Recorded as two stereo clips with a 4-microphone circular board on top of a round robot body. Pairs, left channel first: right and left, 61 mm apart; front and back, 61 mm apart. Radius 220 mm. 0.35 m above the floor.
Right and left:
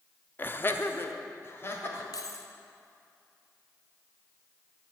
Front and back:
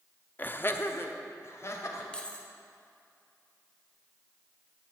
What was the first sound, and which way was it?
Laughter, 45° right.